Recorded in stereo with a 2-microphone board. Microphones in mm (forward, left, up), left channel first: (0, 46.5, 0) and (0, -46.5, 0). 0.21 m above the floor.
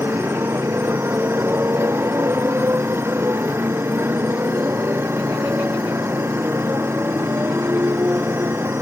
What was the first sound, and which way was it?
A motorcycle, 25° right (ahead or behind).